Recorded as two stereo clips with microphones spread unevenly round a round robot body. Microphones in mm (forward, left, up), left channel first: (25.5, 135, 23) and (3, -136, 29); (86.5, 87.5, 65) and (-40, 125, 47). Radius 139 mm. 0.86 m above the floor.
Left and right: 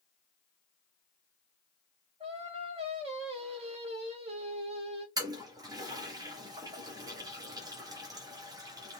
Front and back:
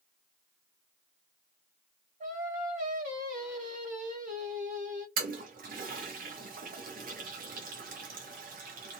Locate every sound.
2.2 s singing: 165° right, 1.1 m
5.2 s a toilet flushing: 170° right, 0.7 m